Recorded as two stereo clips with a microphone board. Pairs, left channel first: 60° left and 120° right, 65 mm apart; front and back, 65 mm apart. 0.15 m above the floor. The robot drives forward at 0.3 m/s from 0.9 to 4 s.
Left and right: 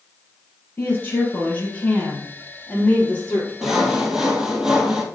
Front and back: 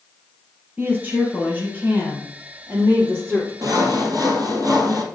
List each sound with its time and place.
0.8 s a woman speaking: 115° left, 3 m; by 3.5 s 130° left, 3.5 m
3.6 s sawing: 155° left, 1.4 m; by 5.0 s 160° left, 1.5 m